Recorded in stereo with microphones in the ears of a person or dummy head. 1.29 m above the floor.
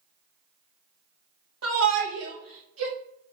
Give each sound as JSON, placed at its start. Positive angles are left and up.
{"t": 1.6, "sound": "a shout", "side_deg": -75, "distance_m": 1.9}